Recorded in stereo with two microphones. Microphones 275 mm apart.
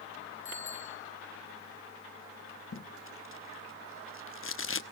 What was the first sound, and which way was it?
A bicycle bell, 45° left (ahead or behind).